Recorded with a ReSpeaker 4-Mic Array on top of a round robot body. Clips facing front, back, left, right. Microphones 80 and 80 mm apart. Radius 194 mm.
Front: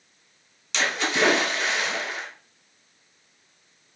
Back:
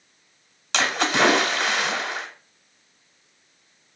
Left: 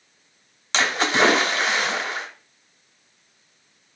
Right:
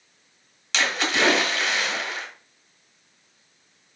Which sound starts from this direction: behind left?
A splash, at 0.7 s.